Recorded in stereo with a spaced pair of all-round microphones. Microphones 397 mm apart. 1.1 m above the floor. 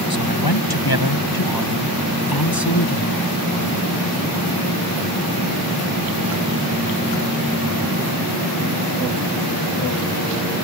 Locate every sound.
0.1 s a man speaking: 65° left (ahead or behind); by 3.3 s 60° left (ahead or behind)